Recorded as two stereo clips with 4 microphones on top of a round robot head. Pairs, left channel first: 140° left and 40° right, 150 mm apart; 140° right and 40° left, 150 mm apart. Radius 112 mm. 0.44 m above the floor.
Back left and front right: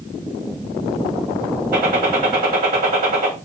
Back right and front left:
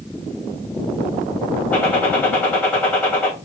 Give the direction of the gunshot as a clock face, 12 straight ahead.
2 o'clock.